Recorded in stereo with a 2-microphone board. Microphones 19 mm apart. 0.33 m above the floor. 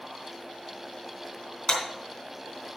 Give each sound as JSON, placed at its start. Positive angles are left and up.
{"t": 1.7, "sound": "a clap", "side_deg": 60, "distance_m": 3.5}